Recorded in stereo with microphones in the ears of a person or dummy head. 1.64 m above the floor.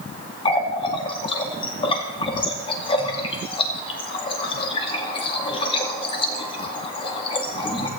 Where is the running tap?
30° left (ahead or behind), 2 m.